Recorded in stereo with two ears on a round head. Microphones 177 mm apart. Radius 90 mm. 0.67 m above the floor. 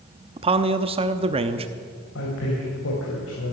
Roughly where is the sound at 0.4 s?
Right.